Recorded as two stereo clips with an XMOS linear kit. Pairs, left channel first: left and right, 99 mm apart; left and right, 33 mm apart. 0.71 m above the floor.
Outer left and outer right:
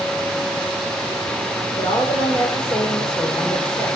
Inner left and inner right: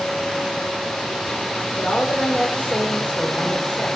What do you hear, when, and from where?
1.8 s a woman speaking: 50° left (ahead or behind), 2.0 m